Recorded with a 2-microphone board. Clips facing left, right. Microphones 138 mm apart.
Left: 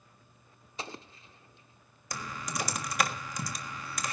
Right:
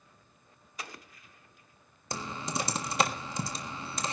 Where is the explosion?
25° left (ahead or behind), 0.7 m.